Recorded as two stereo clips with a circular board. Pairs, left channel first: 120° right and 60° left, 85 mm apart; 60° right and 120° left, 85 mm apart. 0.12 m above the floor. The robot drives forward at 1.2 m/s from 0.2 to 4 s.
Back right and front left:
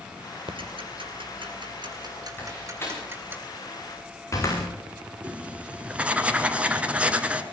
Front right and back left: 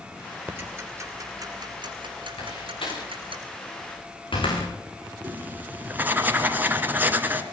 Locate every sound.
0.5 s ticking: 50° left, 2.5 m; by 3.4 s 130° left, 2.5 m
2.4 s a door slam: 55° right, 9 m; by 4.7 s 70° right, 8 m
5.2 s writing: 105° left, 1.7 m